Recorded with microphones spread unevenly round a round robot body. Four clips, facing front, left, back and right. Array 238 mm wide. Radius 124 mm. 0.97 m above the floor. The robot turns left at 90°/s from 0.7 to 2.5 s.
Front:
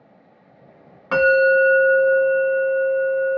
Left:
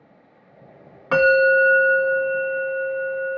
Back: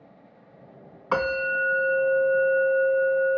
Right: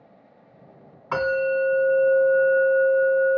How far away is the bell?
About 1.5 m.